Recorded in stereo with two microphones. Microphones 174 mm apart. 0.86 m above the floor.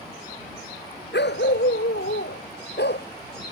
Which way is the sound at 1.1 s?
85° left.